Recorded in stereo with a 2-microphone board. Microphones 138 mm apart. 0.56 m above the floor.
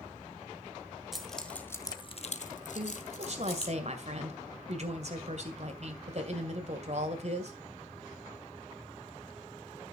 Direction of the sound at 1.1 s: Centre (ahead or behind).